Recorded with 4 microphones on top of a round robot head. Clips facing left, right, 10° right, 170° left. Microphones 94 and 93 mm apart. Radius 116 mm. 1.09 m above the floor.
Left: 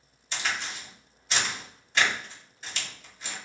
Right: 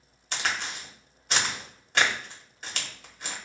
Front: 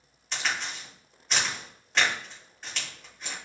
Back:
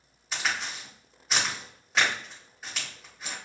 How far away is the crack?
About 1.1 m.